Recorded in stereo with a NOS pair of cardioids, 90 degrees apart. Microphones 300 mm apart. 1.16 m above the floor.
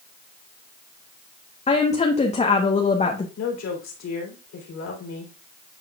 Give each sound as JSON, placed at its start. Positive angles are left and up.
{"t": 1.7, "sound": "a woman speaking", "azimuth_deg": 20, "distance_m": 1.0}
{"t": 3.4, "sound": "a woman speaking", "azimuth_deg": 65, "distance_m": 3.0}